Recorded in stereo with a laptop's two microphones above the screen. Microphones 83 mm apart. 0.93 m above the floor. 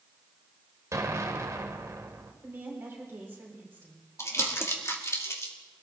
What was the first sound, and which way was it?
An explosion, 40° right (ahead or behind).